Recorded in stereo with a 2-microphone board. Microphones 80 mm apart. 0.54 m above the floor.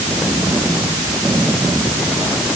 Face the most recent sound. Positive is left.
No sound to turn to.